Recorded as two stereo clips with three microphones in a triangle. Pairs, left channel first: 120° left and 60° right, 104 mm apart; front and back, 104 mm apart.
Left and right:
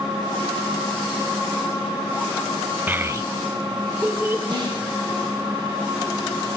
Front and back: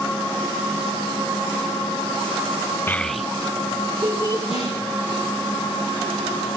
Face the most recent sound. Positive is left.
turn(degrees=-15)